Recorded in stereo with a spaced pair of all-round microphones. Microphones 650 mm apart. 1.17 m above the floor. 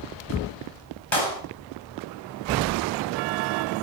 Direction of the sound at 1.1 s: 45° left (ahead or behind).